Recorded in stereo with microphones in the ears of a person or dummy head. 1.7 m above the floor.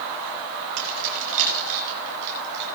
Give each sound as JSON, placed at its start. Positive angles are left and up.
{"t": 0.8, "sound": "keys jangling", "side_deg": -75, "distance_m": 6.5}